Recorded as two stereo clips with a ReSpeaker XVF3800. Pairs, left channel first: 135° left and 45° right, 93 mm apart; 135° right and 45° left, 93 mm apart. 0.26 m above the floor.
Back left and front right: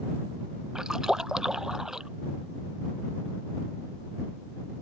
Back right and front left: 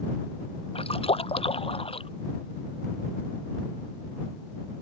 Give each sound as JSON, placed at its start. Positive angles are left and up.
{"t": 0.8, "sound": "a splash", "azimuth_deg": -130}